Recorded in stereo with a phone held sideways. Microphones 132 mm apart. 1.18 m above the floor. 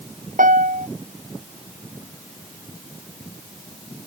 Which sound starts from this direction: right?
A piano, at 0.4 s.